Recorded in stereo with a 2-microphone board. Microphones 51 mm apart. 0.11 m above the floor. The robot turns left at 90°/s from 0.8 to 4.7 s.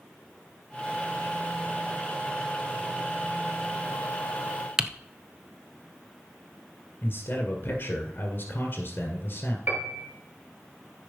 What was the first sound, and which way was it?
Typing on a keyboard, 10° right (ahead or behind).